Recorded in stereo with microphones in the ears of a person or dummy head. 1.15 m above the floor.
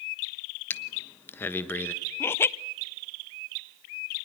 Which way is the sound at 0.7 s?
10° left (ahead or behind).